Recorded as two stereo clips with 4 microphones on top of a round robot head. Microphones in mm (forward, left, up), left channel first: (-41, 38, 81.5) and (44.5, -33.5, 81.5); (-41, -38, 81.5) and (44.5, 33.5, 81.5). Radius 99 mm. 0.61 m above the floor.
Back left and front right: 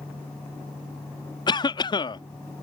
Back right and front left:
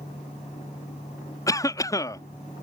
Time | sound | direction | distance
1.5 | a cough | 170° left | ?